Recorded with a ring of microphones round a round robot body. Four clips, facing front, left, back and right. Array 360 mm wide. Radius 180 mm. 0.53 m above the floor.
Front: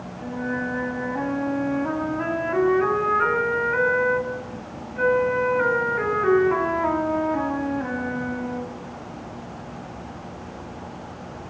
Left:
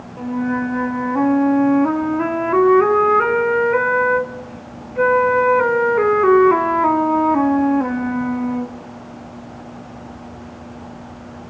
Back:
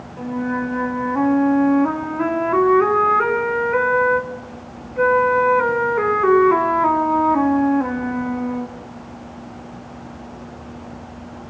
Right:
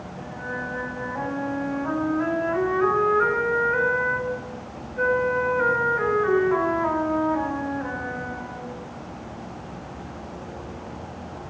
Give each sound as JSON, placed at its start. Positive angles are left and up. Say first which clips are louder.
{"t": 0.2, "sound": "a flute", "louder": "left 13 dB, back 5 dB", "azimuth_deg": 120, "distance_m": 1.8}